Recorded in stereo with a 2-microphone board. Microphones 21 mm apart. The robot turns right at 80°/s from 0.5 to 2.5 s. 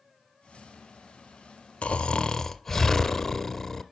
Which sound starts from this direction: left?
Snoring, at 1.8 s.